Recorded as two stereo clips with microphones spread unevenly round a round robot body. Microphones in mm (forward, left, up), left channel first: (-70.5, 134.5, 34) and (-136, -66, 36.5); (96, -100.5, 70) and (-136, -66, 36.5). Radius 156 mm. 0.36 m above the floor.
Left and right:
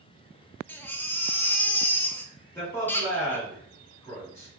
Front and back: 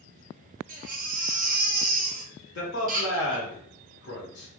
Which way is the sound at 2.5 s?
5° right.